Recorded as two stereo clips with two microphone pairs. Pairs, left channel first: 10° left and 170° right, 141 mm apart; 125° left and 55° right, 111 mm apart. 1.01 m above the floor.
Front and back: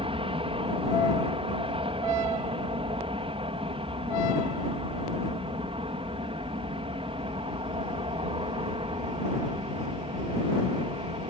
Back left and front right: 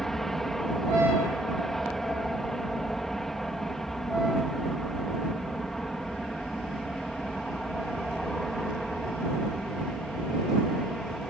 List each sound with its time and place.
0.0 s an aircraft: 150° right